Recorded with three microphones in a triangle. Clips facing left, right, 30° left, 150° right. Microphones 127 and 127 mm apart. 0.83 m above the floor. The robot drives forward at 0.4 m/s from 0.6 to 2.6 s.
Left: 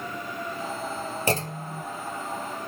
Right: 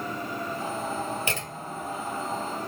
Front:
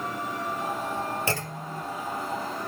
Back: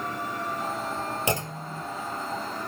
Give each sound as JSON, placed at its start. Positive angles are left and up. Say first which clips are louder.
{"t": 1.3, "sound": "a clunk", "louder": "left 6 dB, back 2 dB", "azimuth_deg": 140, "distance_m": 1.0}